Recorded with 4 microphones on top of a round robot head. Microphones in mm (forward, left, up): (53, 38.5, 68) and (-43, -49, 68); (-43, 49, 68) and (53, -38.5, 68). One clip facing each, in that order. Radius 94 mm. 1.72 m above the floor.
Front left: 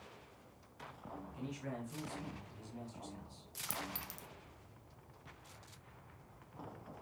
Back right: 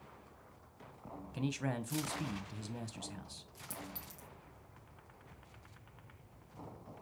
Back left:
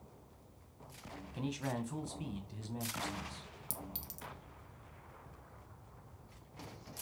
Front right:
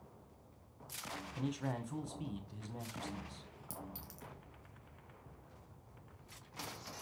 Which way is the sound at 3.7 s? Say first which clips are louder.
Front left 3 dB, even; 75° left.